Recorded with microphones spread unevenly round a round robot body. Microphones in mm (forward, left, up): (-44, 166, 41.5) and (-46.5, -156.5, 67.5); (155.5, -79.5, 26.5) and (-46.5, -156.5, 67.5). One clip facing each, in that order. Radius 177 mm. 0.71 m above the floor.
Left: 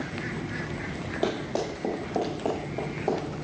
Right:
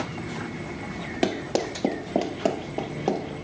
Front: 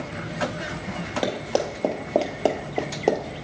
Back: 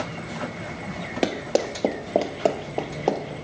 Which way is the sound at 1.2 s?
115° right.